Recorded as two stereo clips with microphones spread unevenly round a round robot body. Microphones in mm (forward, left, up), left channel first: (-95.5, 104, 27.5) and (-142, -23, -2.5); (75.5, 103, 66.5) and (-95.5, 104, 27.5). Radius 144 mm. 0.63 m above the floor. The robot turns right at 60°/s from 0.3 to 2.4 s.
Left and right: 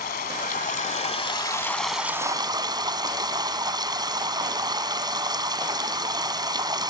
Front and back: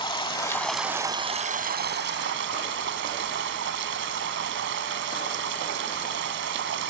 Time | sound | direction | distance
0.0 | running water | 60° left | ?